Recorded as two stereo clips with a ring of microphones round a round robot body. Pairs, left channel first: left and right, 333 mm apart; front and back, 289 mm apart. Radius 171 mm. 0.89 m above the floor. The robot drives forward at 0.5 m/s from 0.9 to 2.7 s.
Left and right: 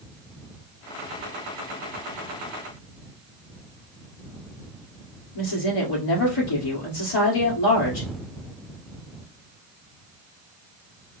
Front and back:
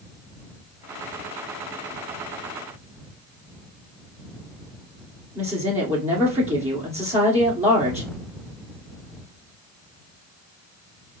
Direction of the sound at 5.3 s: 110° left.